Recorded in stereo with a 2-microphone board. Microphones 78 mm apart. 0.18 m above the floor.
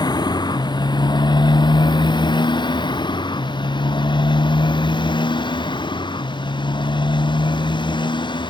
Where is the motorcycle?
65° left (ahead or behind); by 8.5 s 85° left.